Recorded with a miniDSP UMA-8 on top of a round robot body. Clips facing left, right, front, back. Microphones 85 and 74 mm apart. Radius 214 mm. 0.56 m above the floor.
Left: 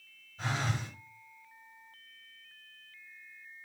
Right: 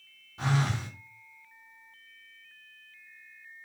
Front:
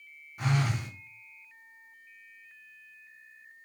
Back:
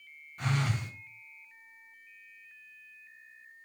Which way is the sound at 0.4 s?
80° right.